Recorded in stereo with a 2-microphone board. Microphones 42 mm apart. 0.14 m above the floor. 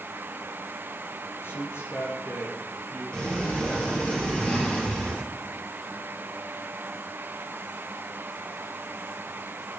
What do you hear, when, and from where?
1.4 s a man speaking: 65° left (ahead or behind), 3 m
3.1 s a sliding door: 25° left (ahead or behind), 2.5 m